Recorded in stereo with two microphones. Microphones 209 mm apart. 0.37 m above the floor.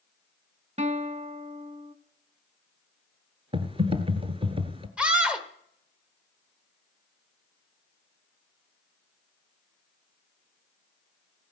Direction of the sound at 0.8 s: 35° right (ahead or behind).